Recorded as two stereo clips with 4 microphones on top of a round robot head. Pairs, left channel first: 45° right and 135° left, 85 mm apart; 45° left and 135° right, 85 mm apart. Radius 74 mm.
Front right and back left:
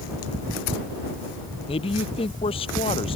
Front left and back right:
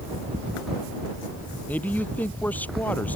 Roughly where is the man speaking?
Ahead right.